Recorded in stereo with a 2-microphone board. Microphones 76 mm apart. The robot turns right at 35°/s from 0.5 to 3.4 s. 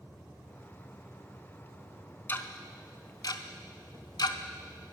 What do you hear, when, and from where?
2.3 s ticking: 25° left (ahead or behind), 0.6 m; by 5.0 s 65° left (ahead or behind), 0.6 m